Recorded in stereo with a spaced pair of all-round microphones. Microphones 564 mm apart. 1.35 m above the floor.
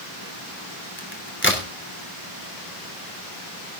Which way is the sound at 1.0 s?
20° left (ahead or behind).